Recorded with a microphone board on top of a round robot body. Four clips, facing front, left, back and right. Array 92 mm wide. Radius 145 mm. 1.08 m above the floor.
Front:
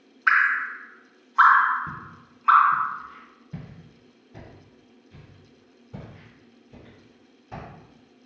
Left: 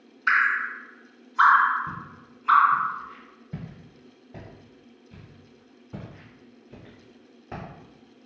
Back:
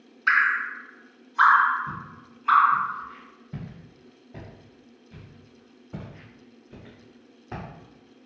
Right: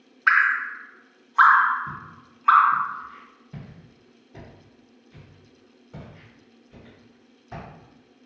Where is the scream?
I don't hear a scream.